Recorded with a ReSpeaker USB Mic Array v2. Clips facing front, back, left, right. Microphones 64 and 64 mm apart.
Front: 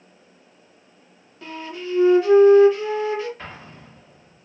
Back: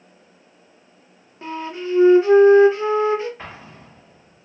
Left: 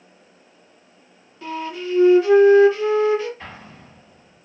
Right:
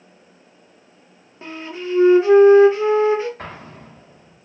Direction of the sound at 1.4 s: 135° right.